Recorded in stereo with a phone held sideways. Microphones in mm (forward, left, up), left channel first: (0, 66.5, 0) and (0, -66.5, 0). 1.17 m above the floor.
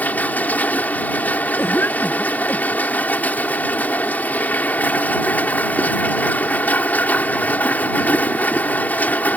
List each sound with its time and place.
0.0 s a machine running: 10° left (ahead or behind)
1.6 s a cough: 15° left (ahead or behind)